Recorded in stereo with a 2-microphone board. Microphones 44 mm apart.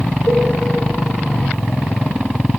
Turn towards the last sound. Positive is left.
turn(degrees=70)  # may be behind; listen again after turning